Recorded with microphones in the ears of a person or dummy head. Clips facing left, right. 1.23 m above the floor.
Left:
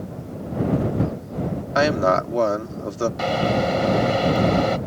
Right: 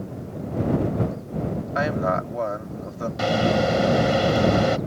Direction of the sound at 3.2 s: 10° right (ahead or behind).